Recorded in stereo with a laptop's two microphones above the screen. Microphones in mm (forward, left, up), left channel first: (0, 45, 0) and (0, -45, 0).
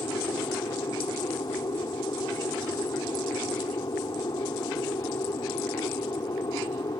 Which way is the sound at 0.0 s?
50° left (ahead or behind).